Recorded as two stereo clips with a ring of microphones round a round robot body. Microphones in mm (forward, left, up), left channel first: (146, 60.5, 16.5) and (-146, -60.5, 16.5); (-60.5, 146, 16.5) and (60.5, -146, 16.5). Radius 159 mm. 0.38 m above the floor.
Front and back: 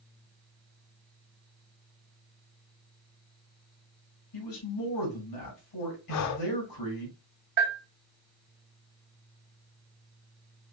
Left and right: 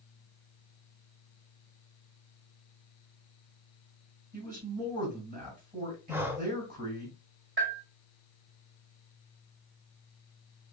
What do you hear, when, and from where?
4.3 s a man speaking: 5° right, 3 m
6.1 s breathing: 15° left, 0.5 m
7.6 s a bell: 115° right, 2 m